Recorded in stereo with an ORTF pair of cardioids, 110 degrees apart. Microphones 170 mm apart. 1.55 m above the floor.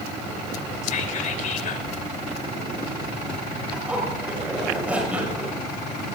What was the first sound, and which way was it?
Whispering, 50° left.